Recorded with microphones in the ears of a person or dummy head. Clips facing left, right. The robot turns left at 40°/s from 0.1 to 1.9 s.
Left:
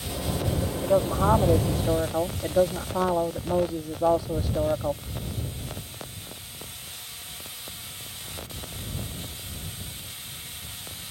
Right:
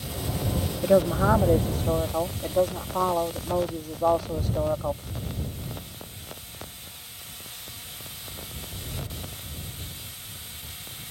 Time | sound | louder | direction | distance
0.8 | a woman speaking | right 3 dB | 150° right | ?